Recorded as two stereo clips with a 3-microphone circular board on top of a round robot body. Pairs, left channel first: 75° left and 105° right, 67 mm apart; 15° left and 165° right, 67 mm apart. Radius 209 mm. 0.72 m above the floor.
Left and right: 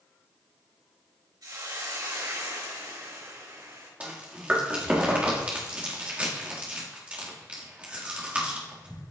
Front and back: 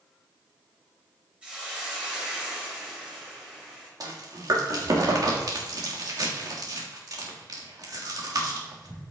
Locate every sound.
1.4 s a hiss: 90° right, 4 m
4.0 s chewing: 175° right, 2 m